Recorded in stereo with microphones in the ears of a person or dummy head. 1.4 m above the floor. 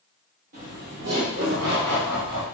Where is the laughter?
40° right (ahead or behind), 1.0 m; by 2.5 s 80° right, 1.9 m.